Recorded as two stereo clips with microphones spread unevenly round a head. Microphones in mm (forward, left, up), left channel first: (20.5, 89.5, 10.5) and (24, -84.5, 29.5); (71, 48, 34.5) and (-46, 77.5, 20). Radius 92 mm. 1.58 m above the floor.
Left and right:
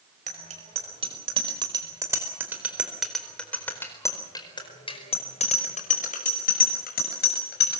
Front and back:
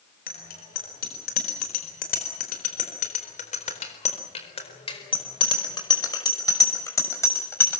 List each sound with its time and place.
0.3 s a bicycle bell: 40° right, 5.5 m; by 7.8 s 55° left, 7 m